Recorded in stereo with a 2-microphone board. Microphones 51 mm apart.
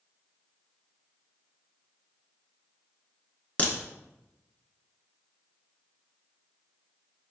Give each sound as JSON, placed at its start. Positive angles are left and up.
{"t": 3.6, "sound": "a crack", "side_deg": 30, "distance_m": 0.9}